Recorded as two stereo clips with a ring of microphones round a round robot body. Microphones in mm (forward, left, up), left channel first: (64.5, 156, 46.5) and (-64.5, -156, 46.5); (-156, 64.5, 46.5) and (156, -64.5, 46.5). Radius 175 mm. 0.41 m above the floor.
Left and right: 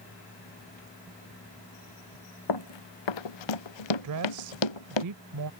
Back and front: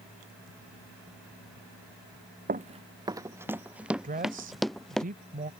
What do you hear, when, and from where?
2.5 s running footsteps: 45° left; by 5.0 s 70° left
4.0 s a woman speaking: 85° right